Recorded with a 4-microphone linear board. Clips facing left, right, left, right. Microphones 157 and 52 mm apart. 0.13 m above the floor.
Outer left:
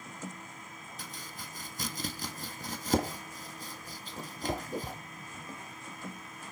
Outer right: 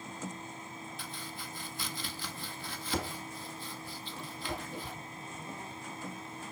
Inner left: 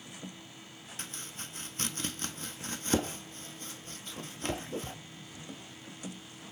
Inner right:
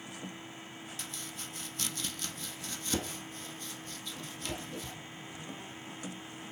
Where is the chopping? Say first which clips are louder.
Outer right 2 dB, inner left 3 dB; 40° left (ahead or behind), 1.1 m.